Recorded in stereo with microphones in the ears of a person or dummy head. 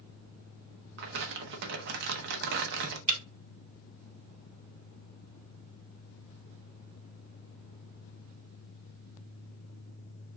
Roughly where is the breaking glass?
Right.